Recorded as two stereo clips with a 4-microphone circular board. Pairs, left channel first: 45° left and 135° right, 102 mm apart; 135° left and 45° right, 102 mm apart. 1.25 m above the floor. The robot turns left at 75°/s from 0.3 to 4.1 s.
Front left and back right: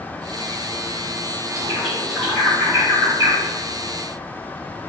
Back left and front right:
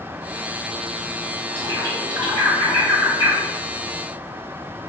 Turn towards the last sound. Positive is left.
turn(degrees=-170)